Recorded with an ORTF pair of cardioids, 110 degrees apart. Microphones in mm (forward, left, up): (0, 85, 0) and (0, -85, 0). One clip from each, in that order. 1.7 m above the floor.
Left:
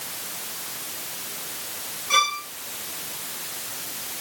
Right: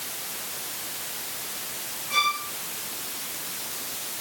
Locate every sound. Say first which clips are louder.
2.1 s a violin: left 3 dB; 70° left, 3 m